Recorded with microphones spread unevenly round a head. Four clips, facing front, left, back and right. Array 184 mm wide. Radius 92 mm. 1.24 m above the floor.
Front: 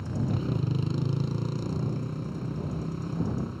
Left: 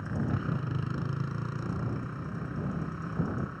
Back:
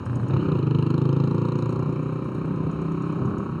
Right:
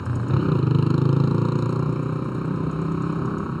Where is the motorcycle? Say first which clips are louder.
Right 8 dB, back 5 dB; 125° right.